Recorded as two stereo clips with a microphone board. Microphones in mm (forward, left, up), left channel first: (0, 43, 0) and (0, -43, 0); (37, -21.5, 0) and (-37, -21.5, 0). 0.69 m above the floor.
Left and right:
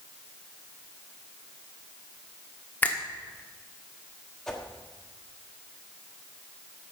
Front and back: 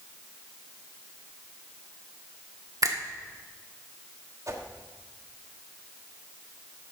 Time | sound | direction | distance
2.8 | a finger snap | 160° left | 1.3 m
4.5 | a whoosh | 170° left | 1.3 m